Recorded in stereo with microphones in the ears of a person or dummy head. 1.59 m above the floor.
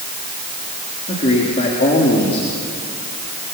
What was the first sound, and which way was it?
A man speaking, 40° left (ahead or behind).